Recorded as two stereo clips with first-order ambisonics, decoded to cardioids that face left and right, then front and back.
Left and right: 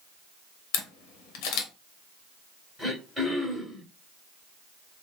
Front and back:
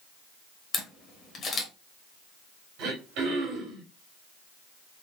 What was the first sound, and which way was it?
A camera shutter, 70° left.